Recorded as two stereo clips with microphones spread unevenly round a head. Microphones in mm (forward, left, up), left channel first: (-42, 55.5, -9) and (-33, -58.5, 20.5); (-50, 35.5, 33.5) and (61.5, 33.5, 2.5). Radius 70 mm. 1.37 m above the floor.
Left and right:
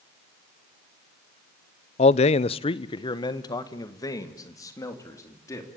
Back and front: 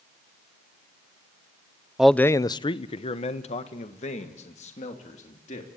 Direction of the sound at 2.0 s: 75° left.